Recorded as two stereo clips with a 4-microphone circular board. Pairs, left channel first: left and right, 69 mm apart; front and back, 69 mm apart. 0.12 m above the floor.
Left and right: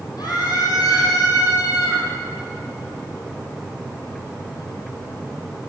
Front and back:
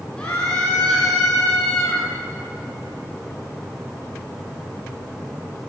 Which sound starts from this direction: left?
A scream, at 0.2 s.